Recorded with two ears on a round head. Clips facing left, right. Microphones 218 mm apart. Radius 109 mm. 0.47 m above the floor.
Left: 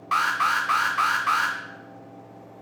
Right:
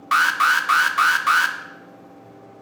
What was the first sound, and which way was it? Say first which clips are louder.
An alarm: right 4 dB; 25° right (ahead or behind).